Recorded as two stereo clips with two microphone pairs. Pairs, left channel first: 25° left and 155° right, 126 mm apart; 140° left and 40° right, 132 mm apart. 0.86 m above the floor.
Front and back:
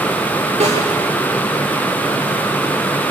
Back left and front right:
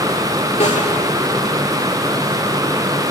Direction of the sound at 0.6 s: 170° left.